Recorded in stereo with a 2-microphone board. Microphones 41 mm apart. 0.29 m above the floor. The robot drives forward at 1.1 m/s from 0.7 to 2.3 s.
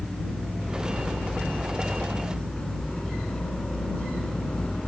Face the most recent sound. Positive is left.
turn(degrees=20)  # may be behind; listen again after turning